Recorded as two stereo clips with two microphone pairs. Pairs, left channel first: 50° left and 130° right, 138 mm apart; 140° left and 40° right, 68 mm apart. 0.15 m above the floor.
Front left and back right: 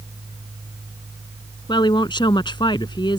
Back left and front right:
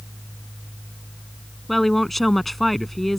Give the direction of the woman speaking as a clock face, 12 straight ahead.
10 o'clock.